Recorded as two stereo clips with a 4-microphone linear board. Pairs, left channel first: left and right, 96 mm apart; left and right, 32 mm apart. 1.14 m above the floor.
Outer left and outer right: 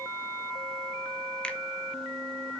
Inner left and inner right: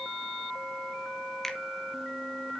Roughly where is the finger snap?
Centre.